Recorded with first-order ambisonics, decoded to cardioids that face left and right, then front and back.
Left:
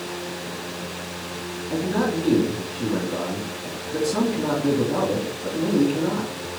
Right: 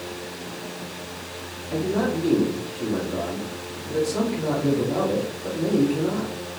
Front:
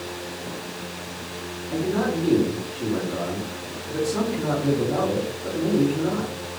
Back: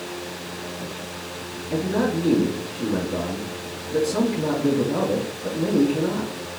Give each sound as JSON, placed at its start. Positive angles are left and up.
{"t": 1.7, "sound": "a man speaking", "azimuth_deg": 110, "distance_m": 1.9}